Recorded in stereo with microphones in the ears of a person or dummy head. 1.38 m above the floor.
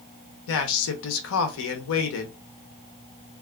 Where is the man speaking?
70° left (ahead or behind), 0.8 m.